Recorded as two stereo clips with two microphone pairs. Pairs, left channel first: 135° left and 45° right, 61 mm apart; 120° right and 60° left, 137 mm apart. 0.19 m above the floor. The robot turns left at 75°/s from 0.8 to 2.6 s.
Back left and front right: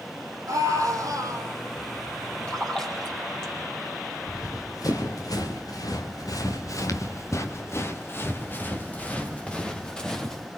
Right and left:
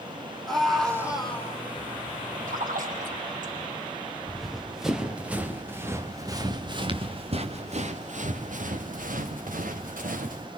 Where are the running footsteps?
150° left, 4 m; by 10.5 s 55° left, 4.5 m.